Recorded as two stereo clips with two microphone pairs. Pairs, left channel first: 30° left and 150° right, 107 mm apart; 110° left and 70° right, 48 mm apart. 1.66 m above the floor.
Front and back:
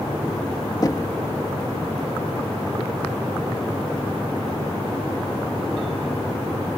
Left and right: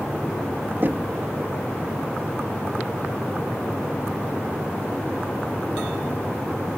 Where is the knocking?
25° right.